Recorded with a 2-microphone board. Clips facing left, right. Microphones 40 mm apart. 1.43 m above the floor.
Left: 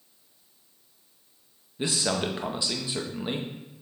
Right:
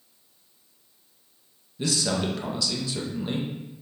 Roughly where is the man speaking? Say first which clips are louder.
Right 1 dB; left.